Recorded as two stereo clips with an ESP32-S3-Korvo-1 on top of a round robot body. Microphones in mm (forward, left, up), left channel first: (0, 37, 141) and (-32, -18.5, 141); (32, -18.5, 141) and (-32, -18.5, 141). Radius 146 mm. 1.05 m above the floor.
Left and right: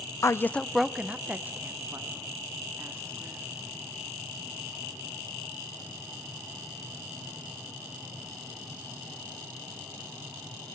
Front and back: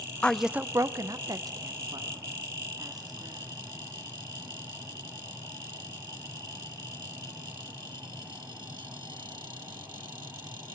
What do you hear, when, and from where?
0.2 s a woman speaking: 65° left, 0.7 m; by 3.5 s 175° right, 4 m